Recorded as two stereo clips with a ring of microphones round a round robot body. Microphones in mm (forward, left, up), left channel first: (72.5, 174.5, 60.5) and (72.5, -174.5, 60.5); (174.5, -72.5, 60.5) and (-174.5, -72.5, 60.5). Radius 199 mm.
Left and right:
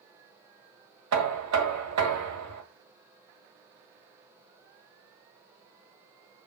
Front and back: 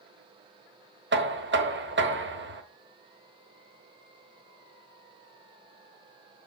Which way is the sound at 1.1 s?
125° right.